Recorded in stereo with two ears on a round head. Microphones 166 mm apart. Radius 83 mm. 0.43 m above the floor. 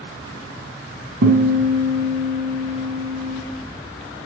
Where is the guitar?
70° right (ahead or behind), 2.5 m.